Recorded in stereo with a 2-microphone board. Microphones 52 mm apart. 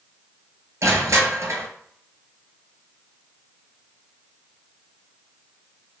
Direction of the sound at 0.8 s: 80° right.